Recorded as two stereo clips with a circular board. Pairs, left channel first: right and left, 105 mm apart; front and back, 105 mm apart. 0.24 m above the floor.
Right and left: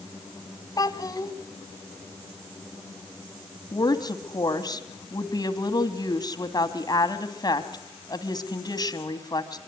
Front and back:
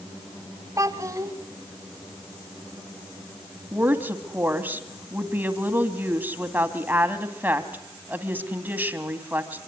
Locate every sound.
0.8 s a child speaking: 130° right, 1.5 m
3.7 s a woman speaking: 115° right, 1.9 m